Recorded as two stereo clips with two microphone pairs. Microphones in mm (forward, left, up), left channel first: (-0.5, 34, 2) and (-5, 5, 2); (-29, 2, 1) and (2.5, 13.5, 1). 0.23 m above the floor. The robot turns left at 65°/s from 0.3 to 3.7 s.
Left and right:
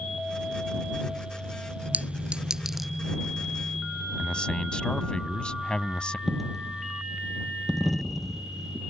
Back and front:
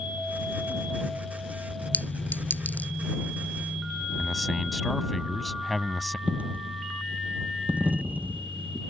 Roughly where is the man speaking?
Behind left.